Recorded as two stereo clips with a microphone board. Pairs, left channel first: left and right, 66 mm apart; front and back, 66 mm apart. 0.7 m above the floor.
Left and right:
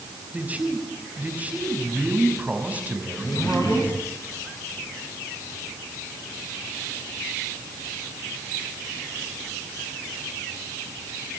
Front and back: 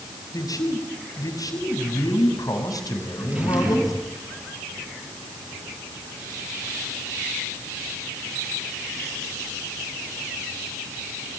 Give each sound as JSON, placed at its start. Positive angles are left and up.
{"t": 0.3, "sound": "a man speaking", "azimuth_deg": -25, "distance_m": 5.5}
{"t": 3.1, "sound": "a drawer", "azimuth_deg": 110, "distance_m": 8.5}